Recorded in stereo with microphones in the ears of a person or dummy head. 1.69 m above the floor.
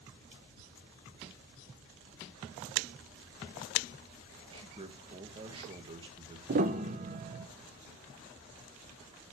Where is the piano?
50° right (ahead or behind), 1.0 m.